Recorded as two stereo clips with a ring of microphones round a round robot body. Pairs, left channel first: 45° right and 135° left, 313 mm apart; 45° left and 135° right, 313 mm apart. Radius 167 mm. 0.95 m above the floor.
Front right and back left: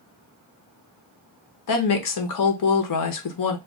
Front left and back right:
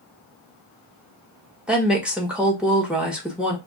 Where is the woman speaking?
50° right, 1.0 m.